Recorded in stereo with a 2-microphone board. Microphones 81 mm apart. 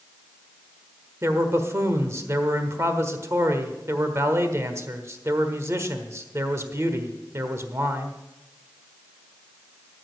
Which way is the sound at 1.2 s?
35° right (ahead or behind).